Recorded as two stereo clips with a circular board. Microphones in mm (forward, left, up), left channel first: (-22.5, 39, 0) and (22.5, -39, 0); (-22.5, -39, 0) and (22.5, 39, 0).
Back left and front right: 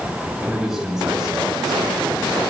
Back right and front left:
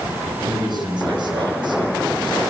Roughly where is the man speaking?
Ahead left.